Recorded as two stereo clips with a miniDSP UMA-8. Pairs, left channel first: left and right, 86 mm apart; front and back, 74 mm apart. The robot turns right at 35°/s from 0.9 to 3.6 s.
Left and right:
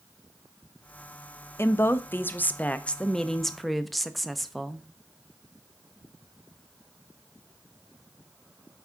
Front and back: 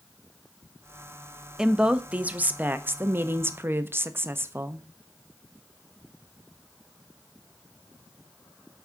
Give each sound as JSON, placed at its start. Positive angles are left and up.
{"t": 1.6, "sound": "a woman speaking", "azimuth_deg": 110, "distance_m": 0.6}